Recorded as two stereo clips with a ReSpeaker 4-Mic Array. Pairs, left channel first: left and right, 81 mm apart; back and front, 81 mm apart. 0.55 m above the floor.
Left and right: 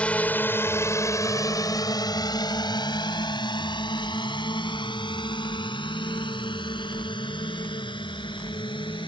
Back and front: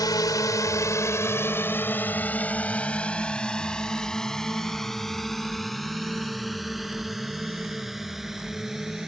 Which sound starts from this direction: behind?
A drone, at 0.0 s.